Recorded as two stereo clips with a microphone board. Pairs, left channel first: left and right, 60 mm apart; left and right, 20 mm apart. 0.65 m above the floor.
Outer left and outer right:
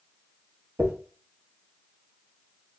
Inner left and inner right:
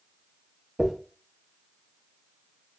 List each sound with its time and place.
0.8 s a dropped coin: 55° right (ahead or behind), 1.1 m